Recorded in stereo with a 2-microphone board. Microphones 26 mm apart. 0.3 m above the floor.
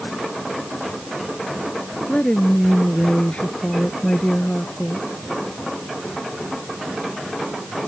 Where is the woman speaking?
50° left (ahead or behind).